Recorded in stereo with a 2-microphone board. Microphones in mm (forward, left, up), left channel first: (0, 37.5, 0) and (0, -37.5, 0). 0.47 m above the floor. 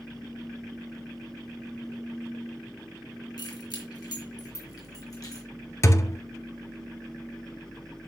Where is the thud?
40° left (ahead or behind), 0.8 m.